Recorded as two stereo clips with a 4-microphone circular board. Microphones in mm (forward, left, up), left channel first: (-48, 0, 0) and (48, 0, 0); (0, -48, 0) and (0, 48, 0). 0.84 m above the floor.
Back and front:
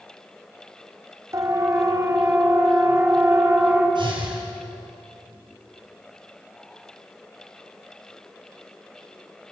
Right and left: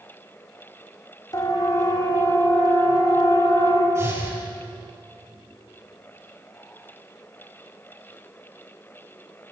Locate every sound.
1.3 s a siren: 50° right, 3 m; by 3.9 s 65° right, 4.5 m
4.0 s breathing: 30° left, 7.5 m